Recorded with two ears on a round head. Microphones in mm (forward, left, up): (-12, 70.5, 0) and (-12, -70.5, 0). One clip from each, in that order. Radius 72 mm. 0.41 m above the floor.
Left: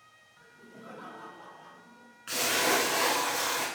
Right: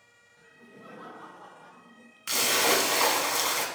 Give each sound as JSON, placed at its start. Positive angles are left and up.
{"t": 0.4, "sound": "laughter", "side_deg": 20, "distance_m": 1.4}
{"t": 2.3, "sound": "a splash", "side_deg": -75, "distance_m": 0.7}